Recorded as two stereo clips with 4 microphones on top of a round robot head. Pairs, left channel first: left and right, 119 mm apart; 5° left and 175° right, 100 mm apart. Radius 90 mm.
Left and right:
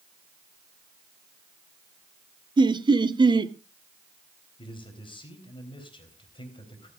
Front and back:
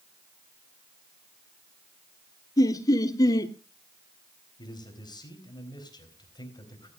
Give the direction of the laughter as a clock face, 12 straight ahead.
2 o'clock.